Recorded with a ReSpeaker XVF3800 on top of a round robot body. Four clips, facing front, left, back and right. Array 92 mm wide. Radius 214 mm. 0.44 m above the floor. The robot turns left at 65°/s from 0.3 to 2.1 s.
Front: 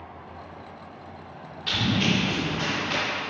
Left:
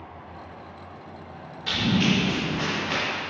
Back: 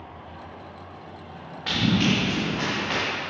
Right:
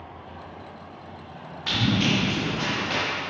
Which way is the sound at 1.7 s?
155° right.